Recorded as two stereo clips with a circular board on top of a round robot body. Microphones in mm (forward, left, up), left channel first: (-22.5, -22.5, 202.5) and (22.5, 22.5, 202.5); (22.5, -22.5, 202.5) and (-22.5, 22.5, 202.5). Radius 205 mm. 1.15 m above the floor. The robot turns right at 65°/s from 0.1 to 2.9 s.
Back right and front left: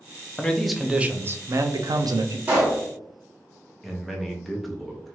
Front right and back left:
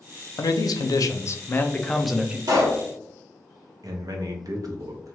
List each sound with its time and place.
0.4 s a man speaking: 65° right, 0.5 m; by 2.4 s 65° left, 0.5 m
2.5 s a pop: 115° left, 1.1 m; by 2.8 s 140° left, 1.1 m
3.8 s a man speaking: 140° left, 0.8 m